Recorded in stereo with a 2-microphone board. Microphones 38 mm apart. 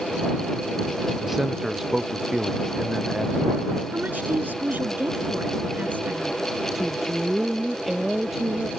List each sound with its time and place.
1.2 s a man speaking: 10° right (ahead or behind)
3.9 s a woman speaking: 55° right (ahead or behind)
6.8 s a woman speaking: 5° right (ahead or behind)